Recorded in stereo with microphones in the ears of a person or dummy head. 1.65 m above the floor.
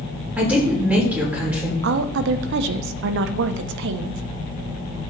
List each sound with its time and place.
0.4 s a woman speaking: 5° right (ahead or behind), 4 m
1.8 s a woman speaking: 65° right (ahead or behind), 0.6 m